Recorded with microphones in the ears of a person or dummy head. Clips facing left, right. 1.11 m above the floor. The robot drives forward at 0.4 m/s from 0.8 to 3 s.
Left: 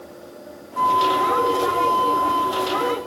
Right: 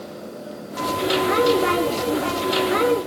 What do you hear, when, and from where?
0.8 s a flute: 80° left, 3.5 m; by 3.0 s 70° left (ahead or behind), 4 m